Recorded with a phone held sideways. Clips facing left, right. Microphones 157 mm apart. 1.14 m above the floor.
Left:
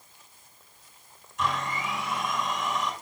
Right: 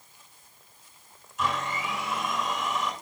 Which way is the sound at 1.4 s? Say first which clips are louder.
Even; centre (ahead or behind).